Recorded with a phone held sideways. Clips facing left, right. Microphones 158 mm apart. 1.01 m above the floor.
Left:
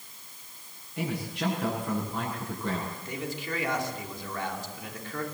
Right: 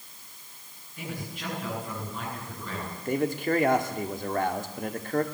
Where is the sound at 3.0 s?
55° right (ahead or behind), 2.5 m.